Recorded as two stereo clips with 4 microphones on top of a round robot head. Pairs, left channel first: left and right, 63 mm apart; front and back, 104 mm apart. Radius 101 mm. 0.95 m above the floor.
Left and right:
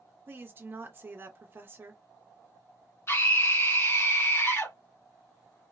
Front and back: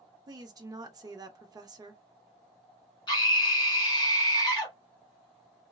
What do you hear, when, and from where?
0.3 s a woman speaking: 135° right, 0.8 m
3.1 s a scream: 45° left, 1.8 m